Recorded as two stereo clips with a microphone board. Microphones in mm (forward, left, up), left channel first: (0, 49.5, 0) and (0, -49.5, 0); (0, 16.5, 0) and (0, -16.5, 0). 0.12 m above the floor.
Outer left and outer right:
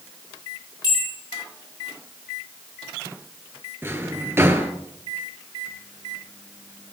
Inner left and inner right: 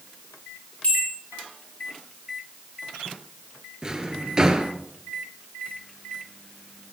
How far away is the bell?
About 5 m.